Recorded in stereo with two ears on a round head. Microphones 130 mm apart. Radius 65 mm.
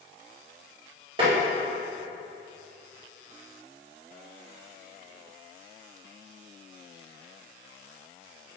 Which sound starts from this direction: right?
Tapping, at 1.2 s.